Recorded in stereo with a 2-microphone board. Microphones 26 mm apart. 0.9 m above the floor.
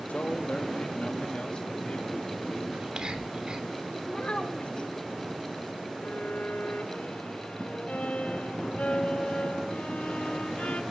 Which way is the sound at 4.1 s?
50° left (ahead or behind).